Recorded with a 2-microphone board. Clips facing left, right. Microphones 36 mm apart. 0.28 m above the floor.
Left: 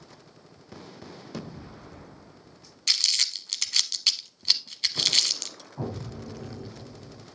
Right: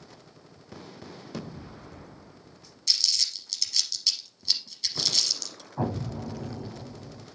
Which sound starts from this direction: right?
An explosion, at 5.8 s.